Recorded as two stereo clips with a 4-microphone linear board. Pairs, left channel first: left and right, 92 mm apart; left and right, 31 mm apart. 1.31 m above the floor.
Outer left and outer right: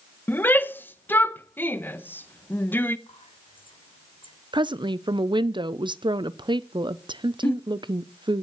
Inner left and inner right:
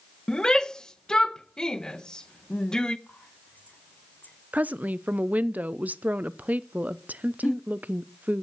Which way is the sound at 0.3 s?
20° left (ahead or behind).